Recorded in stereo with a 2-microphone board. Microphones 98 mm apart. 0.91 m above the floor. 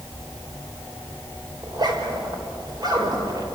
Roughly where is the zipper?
Right.